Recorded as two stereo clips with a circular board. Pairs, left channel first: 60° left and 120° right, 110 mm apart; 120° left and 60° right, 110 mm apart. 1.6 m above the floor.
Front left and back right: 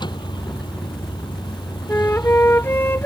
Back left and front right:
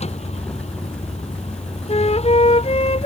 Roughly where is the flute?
Behind left.